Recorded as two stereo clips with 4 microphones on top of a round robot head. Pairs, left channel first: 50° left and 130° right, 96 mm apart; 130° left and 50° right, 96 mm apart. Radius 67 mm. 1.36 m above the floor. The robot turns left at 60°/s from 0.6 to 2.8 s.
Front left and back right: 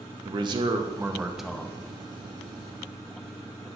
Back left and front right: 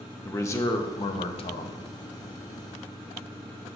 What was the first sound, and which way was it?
A man speaking, 170° right.